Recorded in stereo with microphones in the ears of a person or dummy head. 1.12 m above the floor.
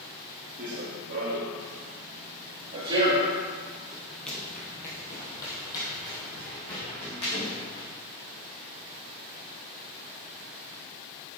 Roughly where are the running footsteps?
Right.